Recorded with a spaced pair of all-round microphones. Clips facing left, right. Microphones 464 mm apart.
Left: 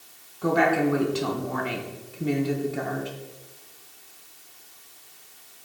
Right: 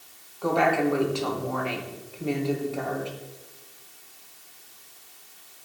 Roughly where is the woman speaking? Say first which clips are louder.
Left 1 dB; left.